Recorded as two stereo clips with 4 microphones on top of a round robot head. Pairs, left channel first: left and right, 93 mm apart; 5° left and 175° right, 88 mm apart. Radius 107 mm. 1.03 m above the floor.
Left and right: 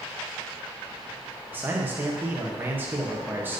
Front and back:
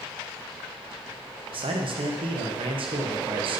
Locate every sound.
1.5 s a man speaking: 160° right, 1.0 m